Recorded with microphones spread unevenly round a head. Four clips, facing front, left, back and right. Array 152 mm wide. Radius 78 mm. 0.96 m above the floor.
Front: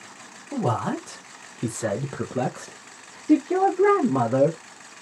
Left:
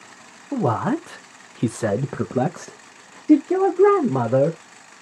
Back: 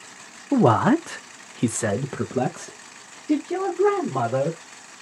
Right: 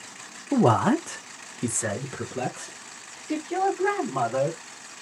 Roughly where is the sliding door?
I don't hear a sliding door.